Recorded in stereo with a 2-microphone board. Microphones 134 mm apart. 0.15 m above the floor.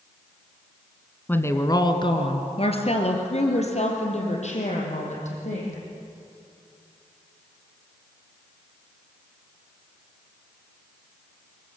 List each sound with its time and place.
1.3 s a woman speaking: 15° left (ahead or behind), 1.4 m; by 5.8 s 60° left (ahead or behind), 6.5 m